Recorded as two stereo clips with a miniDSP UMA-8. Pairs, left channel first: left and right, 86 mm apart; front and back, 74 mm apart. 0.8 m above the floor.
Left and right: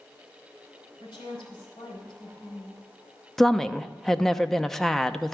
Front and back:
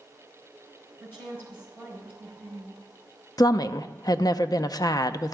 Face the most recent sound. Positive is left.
turn(degrees=5)